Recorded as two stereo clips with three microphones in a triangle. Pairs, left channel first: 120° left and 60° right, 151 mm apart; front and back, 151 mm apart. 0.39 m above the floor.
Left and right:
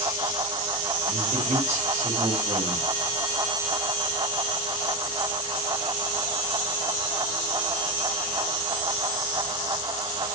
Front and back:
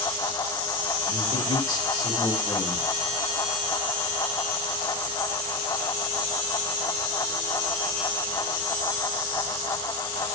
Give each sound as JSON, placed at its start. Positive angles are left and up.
{"t": 1.1, "sound": "a man speaking", "azimuth_deg": -60, "distance_m": 1.9}